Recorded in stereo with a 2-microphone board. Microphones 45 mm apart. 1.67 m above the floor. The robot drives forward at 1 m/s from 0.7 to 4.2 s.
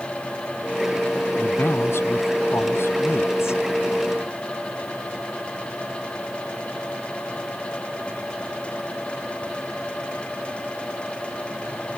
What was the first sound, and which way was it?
A man speaking, 70° left (ahead or behind).